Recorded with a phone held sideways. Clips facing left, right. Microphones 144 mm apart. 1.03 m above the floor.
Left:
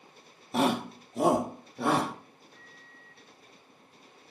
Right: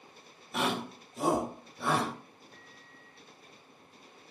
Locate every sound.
0.5 s a shout: 35° left (ahead or behind), 0.8 m; by 2.1 s 70° left (ahead or behind), 2 m
2.5 s a microwave: 70° right (ahead or behind), 4 m